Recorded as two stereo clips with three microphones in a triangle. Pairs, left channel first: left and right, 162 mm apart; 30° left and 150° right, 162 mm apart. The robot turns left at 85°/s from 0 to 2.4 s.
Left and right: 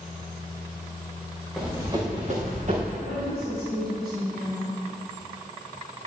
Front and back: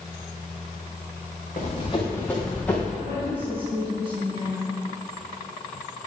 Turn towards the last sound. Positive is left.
turn(degrees=-95)